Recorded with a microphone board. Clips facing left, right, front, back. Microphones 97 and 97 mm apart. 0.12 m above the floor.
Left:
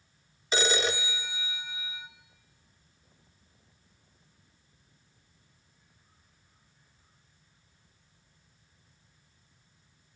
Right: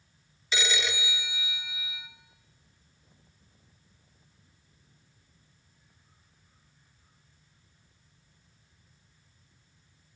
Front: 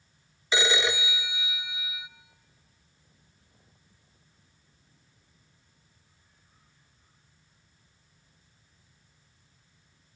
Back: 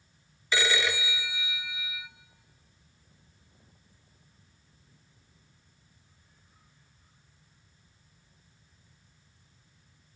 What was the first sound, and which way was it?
A phone ringing, 60° left.